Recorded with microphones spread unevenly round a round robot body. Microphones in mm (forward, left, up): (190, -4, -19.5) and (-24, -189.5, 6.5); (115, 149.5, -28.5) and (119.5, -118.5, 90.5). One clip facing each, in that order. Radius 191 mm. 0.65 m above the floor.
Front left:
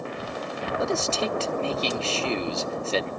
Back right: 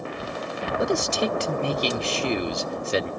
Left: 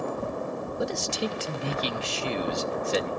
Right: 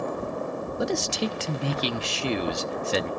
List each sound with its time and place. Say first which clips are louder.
0.8 s a man speaking: back right 3 dB, right 3 dB; 65° right, 1.0 m